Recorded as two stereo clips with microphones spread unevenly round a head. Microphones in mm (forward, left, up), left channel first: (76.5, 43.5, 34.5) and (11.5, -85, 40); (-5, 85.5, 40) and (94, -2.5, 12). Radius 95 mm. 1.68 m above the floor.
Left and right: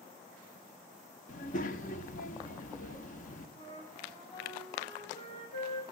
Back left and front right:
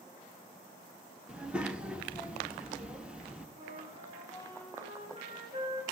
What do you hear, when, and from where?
1.3 s a child speaking: 50° left, 1.1 m
3.6 s a flute: 5° left, 7.5 m